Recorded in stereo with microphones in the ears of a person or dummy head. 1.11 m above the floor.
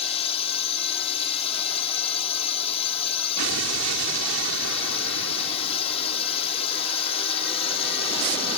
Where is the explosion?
80° right.